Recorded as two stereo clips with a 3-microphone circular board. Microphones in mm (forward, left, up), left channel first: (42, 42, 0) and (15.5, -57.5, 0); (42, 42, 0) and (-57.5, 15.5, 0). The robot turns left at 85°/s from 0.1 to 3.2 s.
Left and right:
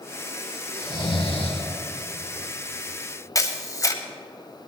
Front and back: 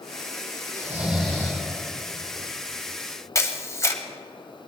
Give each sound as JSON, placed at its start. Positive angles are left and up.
{"t": 0.7, "sound": "snoring", "azimuth_deg": 145, "distance_m": 3.5}
{"t": 3.4, "sound": "a camera shutter", "azimuth_deg": 50, "distance_m": 1.2}